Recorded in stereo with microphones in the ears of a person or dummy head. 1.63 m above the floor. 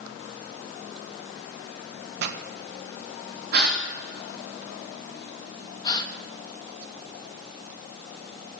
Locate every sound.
2.2 s a pop: 65° right (ahead or behind), 1.4 m
3.5 s a gasp: 55° right (ahead or behind), 2.5 m
5.8 s a gasp: 25° left (ahead or behind), 1.5 m